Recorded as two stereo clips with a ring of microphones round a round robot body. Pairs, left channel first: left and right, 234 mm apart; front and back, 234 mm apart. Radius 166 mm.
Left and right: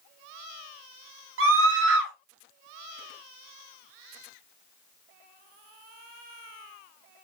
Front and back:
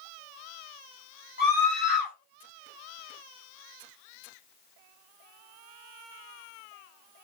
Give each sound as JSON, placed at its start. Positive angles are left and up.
{"t": 1.4, "sound": "a scream", "azimuth_deg": -60, "distance_m": 4.5}